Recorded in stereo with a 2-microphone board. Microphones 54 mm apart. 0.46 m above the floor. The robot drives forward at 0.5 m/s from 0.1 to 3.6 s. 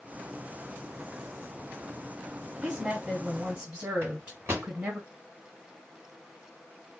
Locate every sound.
2.6 s a woman speaking: 20° right (ahead or behind), 2.5 m; by 5.0 s 25° right (ahead or behind), 2.5 m
4.0 s a microwave: 55° right (ahead or behind), 2.5 m